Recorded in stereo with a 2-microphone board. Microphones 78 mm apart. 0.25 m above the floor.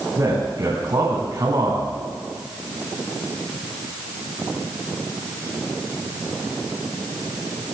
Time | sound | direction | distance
0.2 | a man speaking | 50° right (ahead or behind) | 2 m